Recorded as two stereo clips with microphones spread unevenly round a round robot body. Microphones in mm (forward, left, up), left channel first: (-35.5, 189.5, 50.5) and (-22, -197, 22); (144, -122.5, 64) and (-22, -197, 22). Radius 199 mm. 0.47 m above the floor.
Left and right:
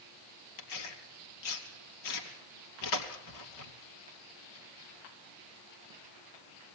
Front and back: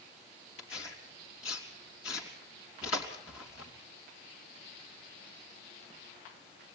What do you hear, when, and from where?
0.6 s tearing paper: 65° left, 3 m